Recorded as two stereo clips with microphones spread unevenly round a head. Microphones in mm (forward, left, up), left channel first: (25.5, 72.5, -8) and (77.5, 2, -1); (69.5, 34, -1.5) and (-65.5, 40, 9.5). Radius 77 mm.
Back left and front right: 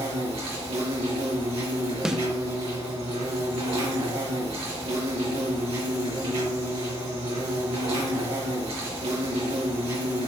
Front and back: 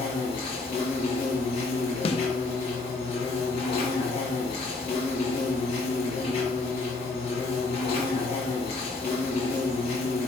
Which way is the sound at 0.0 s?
55° right.